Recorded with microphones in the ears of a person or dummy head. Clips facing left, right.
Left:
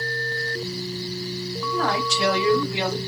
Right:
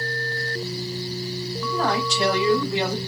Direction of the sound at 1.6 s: 5° right (ahead or behind).